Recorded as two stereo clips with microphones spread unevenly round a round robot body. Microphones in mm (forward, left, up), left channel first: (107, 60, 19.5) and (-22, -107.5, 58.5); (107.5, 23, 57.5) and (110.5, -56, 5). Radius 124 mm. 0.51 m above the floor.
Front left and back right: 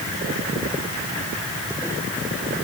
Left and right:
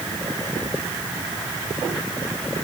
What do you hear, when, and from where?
Only background noise.